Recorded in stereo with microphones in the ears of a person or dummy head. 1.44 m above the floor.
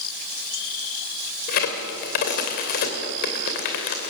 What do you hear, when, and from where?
1.5 s a crack: 55° left (ahead or behind), 2.5 m